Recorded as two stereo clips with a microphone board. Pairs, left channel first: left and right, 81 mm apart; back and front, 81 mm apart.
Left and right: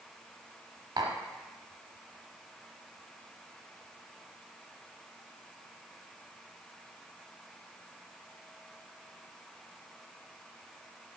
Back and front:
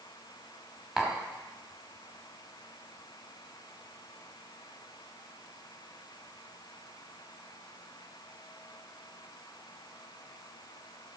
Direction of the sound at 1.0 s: 90° right.